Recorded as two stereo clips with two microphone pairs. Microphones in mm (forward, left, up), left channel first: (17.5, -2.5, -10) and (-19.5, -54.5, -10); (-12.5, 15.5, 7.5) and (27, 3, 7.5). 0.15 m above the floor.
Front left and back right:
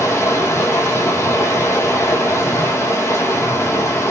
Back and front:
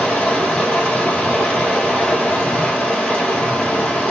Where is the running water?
95° left, 1.4 m.